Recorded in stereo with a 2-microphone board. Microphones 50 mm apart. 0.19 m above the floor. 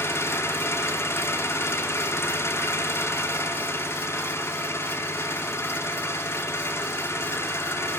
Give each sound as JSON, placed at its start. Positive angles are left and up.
{"t": 0.0, "sound": "an engine running", "side_deg": 65, "distance_m": 3.5}